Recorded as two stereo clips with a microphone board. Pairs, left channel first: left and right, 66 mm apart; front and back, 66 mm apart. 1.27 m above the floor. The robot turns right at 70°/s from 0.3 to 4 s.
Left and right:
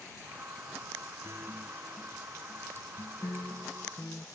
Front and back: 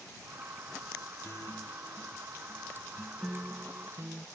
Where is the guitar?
50° right; by 4.2 s 145° left.